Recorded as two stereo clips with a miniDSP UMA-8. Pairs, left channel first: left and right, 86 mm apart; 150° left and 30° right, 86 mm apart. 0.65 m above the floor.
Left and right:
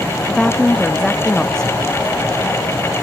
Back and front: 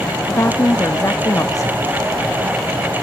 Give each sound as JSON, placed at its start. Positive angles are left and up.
{"t": 0.3, "sound": "a woman speaking", "azimuth_deg": 170, "distance_m": 0.7}